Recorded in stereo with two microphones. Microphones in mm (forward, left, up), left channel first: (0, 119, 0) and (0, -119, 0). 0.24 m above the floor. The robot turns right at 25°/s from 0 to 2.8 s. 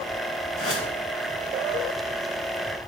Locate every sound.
0.6 s a whoosh: 70° left (ahead or behind), 2.0 m